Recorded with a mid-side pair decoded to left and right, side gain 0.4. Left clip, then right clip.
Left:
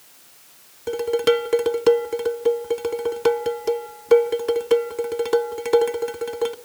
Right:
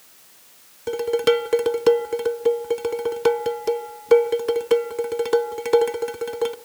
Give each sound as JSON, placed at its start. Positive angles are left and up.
{"t": 0.9, "sound": "dishes clattering", "azimuth_deg": -10, "distance_m": 0.6}